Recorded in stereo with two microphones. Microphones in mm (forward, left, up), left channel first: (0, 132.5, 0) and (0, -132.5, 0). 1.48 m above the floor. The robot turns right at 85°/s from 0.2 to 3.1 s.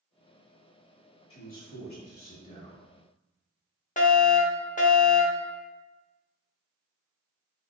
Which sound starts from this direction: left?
A fire alarm, at 4.0 s.